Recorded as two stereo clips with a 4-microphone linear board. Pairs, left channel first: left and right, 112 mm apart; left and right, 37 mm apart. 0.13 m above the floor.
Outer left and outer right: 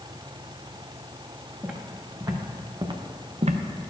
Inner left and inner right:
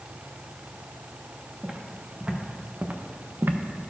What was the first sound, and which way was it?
Footsteps, 15° right (ahead or behind).